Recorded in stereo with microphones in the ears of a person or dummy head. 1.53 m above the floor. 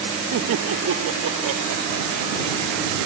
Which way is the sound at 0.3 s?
75° right (ahead or behind).